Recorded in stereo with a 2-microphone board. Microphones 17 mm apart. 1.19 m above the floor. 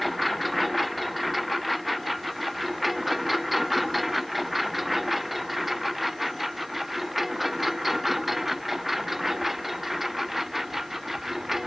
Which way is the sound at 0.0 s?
Centre (ahead or behind).